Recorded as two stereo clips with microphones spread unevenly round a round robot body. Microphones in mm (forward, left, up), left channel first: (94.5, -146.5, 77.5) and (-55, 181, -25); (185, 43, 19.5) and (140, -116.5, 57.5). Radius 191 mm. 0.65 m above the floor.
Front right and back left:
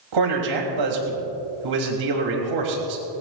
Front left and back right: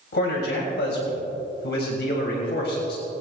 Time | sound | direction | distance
0.1 | a man speaking | 100° left | 3.5 m